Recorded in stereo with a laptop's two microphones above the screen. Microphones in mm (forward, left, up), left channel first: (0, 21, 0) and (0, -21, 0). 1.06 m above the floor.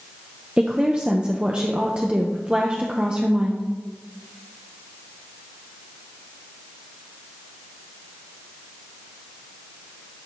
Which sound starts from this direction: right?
A woman speaking, at 0.6 s.